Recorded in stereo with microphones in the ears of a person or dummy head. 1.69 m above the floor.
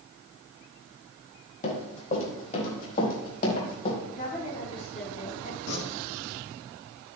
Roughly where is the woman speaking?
Left.